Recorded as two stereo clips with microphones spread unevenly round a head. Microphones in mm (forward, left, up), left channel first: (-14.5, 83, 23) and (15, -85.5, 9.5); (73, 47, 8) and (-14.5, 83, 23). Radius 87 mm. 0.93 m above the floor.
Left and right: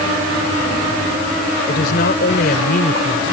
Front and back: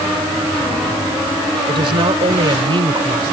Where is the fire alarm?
I don't hear a fire alarm.